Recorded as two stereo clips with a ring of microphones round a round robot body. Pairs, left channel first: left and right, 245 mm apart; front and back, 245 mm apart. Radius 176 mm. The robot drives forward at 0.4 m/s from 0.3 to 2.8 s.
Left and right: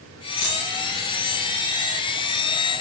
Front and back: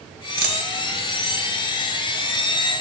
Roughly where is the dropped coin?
Behind left.